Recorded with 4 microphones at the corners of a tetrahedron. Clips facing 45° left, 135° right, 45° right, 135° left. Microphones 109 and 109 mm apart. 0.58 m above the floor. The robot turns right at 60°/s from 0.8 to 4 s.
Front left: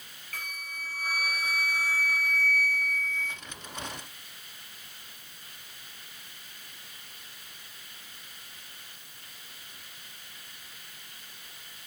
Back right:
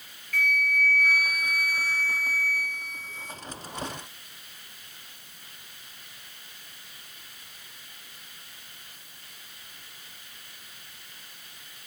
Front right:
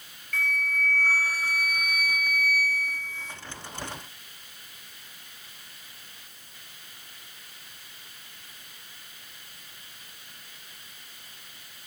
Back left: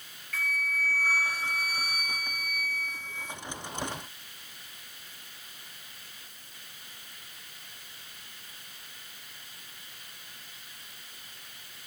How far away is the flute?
About 1.3 m.